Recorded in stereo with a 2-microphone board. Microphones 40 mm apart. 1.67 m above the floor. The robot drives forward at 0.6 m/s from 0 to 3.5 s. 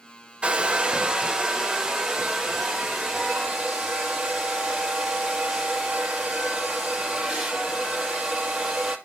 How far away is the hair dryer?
About 1.1 m.